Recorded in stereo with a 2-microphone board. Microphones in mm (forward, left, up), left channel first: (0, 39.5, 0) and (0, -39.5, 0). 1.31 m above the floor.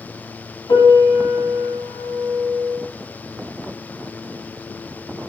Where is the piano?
70° left (ahead or behind), 3 m.